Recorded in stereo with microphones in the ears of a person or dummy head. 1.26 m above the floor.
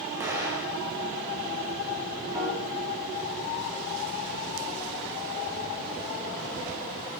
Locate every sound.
0.2 s an explosion: 15° right (ahead or behind), 2.5 m
2.3 s a piano: 15° right (ahead or behind), 4.5 m